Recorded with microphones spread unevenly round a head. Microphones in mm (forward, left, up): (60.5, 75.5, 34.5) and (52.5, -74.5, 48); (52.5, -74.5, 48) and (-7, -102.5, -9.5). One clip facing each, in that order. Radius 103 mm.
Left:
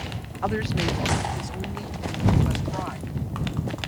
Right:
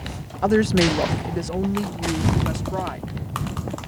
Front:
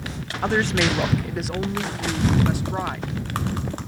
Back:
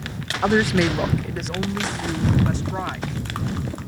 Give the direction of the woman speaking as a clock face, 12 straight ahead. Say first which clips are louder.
Right 9 dB, back 3 dB; 5 o'clock.